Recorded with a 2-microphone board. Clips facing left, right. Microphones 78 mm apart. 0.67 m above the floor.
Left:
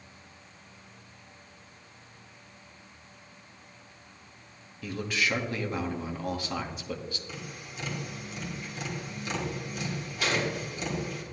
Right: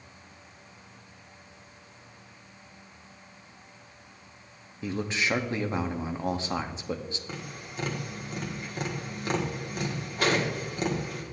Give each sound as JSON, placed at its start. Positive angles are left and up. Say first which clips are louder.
{"t": 4.8, "sound": "a man speaking", "louder": "right 1 dB", "side_deg": -25, "distance_m": 0.9}
{"t": 7.3, "sound": "tapping", "louder": "right 2 dB", "side_deg": -50, "distance_m": 1.7}